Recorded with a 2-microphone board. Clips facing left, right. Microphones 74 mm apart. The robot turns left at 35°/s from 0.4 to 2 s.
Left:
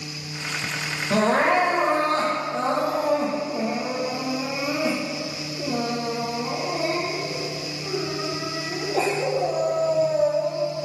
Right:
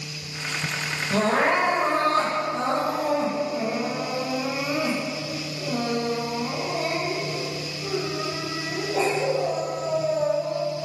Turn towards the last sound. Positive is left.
turn(degrees=10)